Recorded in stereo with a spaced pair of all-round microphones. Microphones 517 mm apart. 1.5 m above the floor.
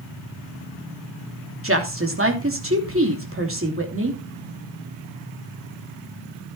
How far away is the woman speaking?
About 3 m.